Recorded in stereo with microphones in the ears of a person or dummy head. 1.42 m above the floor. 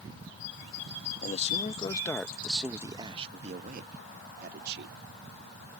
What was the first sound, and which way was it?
A man speaking, 45° left (ahead or behind).